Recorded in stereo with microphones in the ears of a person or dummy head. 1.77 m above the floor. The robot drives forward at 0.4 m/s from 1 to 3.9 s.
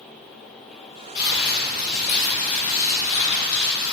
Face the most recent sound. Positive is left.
turn(degrees=60)  # may be behind; listen again after turning